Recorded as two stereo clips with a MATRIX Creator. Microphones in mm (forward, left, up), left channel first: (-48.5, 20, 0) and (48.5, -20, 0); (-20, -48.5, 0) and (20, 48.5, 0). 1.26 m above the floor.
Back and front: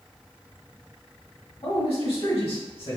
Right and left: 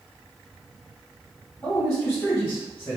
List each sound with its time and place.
1.6 s a man speaking: 175° right, 1.4 m